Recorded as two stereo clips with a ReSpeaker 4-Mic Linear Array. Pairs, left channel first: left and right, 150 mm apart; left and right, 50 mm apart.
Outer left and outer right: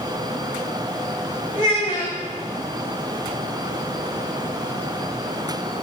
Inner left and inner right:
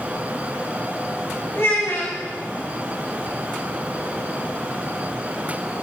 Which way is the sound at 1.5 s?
55° left (ahead or behind).